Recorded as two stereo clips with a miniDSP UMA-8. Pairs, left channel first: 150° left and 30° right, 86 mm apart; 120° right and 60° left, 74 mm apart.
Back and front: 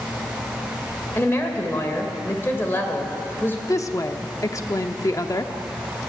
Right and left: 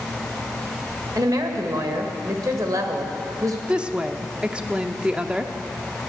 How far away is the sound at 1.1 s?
About 1.7 m.